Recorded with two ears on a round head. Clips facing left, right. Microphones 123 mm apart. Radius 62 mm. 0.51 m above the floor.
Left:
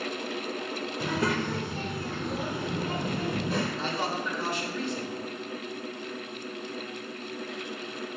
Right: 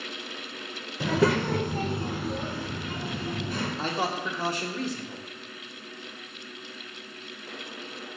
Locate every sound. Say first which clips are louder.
1.0 s a child speaking: right 6 dB; 65° right (ahead or behind), 0.9 m; by 3.7 s 50° left (ahead or behind), 1.0 m
3.8 s a man speaking: right 1 dB; 30° right (ahead or behind), 1.1 m